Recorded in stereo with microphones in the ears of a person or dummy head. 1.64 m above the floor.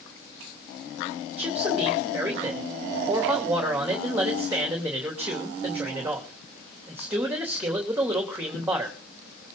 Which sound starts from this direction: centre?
A man speaking, at 1.4 s.